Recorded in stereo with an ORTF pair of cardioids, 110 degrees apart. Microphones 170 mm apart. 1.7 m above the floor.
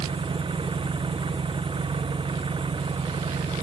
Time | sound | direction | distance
0.0 | an engine running | 30° right | ?